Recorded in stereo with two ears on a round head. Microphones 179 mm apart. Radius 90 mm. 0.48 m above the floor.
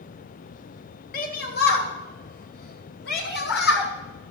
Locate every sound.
1.1 s a shout: 45° left (ahead or behind), 1.0 m; by 3.9 s 60° left (ahead or behind), 2.5 m